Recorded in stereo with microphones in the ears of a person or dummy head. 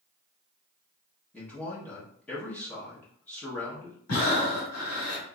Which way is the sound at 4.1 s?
80° left.